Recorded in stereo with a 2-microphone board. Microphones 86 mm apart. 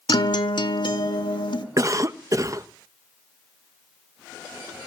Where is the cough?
40° right (ahead or behind), 0.7 m.